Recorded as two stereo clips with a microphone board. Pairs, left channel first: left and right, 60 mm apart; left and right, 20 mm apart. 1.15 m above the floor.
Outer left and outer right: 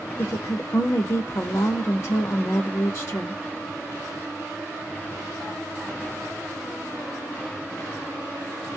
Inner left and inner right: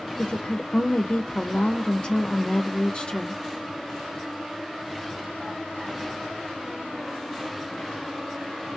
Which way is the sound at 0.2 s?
55° left (ahead or behind).